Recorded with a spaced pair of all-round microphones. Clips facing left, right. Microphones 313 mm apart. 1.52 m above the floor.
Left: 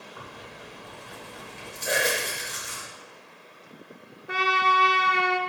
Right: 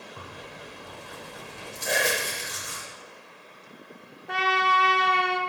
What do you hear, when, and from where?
0.2 s tearing paper: 50° right (ahead or behind), 2 m
1.9 s whispering: 5° left (ahead or behind), 0.6 m
4.3 s a trumpet: 5° left (ahead or behind), 0.6 m